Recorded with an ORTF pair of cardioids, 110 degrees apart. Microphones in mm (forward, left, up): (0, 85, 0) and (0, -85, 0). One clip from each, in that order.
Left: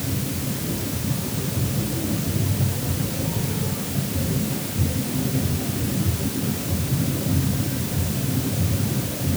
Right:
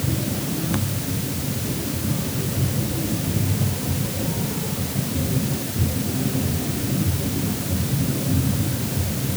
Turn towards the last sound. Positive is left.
No sound to turn to.